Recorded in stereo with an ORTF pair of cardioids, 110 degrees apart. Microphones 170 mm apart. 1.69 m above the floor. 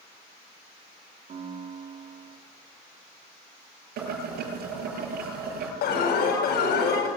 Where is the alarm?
70° left, 9 m.